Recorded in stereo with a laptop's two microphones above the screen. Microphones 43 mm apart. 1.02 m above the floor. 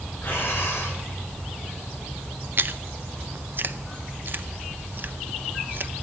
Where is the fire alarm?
I don't hear a fire alarm.